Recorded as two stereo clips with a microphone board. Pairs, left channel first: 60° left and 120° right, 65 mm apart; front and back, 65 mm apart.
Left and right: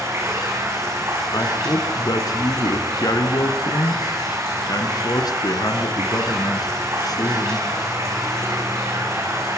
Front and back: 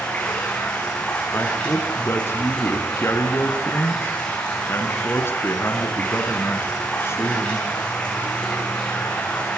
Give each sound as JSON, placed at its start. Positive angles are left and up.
{"t": 0.0, "sound": "running water", "azimuth_deg": -75, "distance_m": 9.5}
{"t": 1.3, "sound": "a woman speaking", "azimuth_deg": 50, "distance_m": 4.0}